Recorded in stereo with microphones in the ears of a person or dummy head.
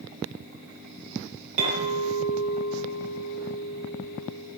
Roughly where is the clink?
Right.